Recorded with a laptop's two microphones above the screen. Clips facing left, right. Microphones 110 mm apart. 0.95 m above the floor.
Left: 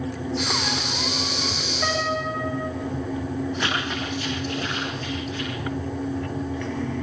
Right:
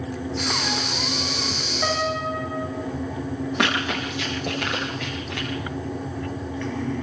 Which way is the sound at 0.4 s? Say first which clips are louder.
Even; 5° left (ahead or behind).